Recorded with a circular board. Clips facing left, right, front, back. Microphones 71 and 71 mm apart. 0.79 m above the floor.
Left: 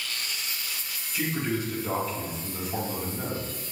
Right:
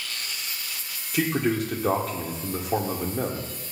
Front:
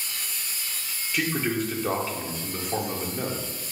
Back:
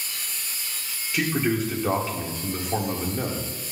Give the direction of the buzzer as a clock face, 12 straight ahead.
No buzzer in this recording.